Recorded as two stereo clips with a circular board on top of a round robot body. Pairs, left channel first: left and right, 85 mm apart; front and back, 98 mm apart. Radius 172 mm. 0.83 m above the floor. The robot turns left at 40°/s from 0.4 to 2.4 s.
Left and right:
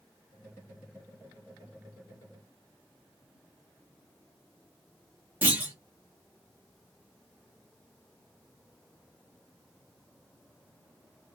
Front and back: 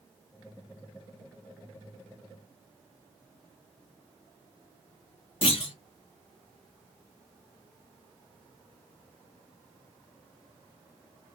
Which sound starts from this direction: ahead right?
A clunk, at 5.4 s.